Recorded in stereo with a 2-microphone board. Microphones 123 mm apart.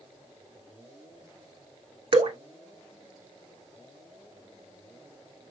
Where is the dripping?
50° right (ahead or behind), 0.6 m.